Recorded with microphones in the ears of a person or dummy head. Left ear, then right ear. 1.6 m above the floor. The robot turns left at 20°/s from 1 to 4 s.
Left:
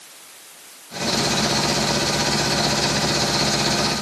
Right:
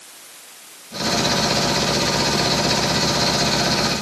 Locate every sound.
Only background noise.